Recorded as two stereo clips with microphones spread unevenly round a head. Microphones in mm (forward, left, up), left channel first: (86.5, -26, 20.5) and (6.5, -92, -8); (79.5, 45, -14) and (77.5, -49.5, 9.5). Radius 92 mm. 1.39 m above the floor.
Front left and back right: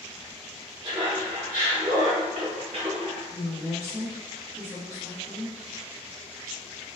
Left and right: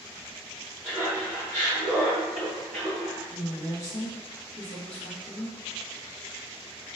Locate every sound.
0.8 s laughter: 175° left, 0.9 m; by 3.2 s 140° right, 1.7 m
3.3 s a woman speaking: 125° left, 0.6 m